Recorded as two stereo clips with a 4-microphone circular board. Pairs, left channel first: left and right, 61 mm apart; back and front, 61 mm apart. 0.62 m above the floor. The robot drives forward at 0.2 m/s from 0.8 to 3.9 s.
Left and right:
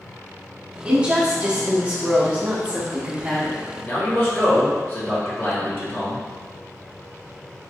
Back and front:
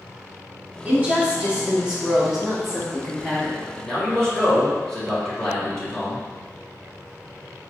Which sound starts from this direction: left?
A man speaking, at 3.8 s.